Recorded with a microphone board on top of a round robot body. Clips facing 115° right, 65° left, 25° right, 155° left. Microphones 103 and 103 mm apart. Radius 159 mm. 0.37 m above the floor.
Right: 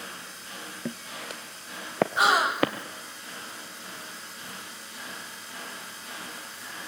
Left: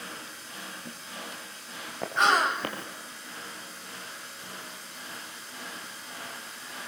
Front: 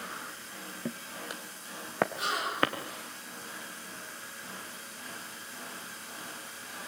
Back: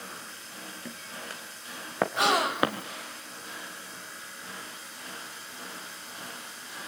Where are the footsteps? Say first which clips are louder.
Right 5 dB, front 5 dB; 85° right, 1.5 m; by 2.7 s 125° right, 2.5 m.